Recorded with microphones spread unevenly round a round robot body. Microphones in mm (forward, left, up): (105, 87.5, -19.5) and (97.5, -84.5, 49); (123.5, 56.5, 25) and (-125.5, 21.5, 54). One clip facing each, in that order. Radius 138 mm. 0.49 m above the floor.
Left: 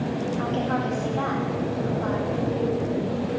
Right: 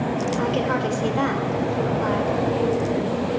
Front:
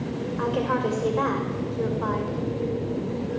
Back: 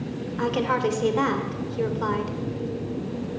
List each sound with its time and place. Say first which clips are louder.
0.4 s a woman speaking: right 3 dB, back 1 dB; 125° right, 2.5 m